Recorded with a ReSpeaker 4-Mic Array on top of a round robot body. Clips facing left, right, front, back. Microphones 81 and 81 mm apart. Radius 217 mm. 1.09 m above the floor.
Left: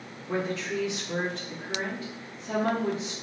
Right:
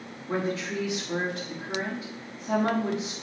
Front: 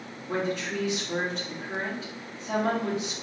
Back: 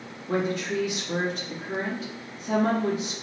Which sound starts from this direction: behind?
A woman speaking, at 0.3 s.